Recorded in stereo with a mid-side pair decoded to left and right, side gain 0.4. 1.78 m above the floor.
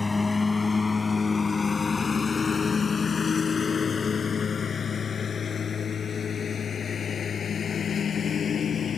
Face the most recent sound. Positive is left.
turn(degrees=55)